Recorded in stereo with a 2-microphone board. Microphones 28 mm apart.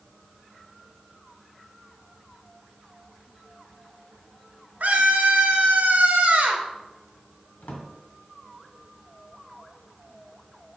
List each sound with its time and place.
4.8 s a scream: 70° right (ahead or behind), 1.8 m
7.6 s a drawer: 70° left (ahead or behind), 1.9 m